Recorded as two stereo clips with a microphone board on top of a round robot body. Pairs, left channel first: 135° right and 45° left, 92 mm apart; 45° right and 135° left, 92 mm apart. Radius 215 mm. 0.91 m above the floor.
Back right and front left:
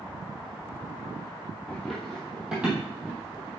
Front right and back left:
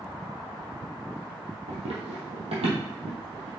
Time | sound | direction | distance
1.7 | running footsteps | 140° left | 1.8 m